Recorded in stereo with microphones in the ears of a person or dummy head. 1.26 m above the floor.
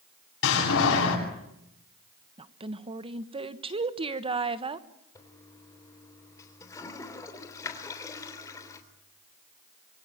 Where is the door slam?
70° left (ahead or behind), 9 m.